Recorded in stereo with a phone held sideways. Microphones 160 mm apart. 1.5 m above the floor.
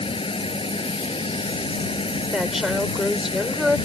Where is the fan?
35° left (ahead or behind).